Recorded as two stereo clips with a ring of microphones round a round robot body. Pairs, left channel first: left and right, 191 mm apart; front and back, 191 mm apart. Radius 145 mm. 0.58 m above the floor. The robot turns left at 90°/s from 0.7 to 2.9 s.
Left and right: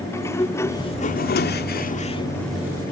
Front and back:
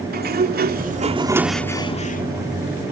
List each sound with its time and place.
0.1 s a sliding door: 165° left; by 2.9 s 35° right